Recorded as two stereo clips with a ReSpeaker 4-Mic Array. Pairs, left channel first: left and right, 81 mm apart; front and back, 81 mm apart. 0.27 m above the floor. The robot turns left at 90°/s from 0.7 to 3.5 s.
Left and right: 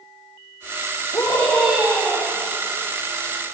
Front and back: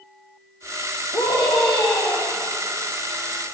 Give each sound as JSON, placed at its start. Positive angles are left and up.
{"t": 1.1, "sound": "a scream", "azimuth_deg": 45, "distance_m": 9.5}